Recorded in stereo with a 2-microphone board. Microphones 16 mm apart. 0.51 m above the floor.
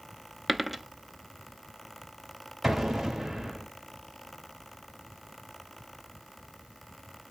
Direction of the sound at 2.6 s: 30° right (ahead or behind).